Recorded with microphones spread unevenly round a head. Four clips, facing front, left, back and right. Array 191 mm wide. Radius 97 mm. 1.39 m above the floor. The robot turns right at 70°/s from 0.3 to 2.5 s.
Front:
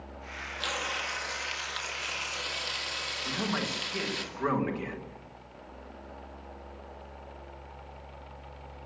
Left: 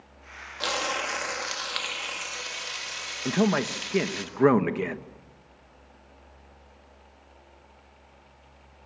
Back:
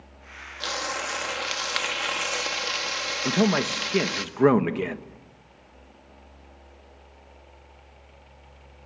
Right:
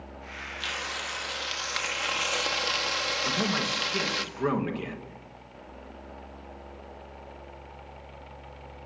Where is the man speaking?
140° left, 1.5 m.